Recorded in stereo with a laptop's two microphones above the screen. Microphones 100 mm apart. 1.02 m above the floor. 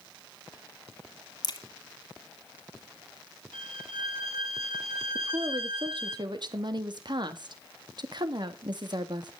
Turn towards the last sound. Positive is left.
turn(degrees=-55)  # may be behind; listen again after turning